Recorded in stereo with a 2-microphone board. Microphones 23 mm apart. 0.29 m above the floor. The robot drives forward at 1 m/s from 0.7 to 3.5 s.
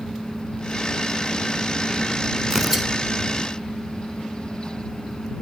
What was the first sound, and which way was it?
Tearing paper, 20° right (ahead or behind).